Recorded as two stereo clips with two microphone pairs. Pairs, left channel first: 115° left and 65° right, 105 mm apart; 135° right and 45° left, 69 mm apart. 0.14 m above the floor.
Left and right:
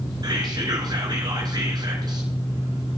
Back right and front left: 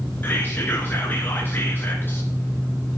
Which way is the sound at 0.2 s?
90° right.